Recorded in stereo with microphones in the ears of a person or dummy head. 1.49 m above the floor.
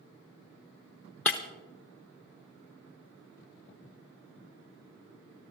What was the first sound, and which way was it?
Breaking glass, centre (ahead or behind).